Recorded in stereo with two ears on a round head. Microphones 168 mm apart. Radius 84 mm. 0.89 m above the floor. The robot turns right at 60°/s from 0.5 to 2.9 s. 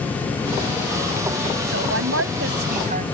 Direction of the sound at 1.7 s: 115° right.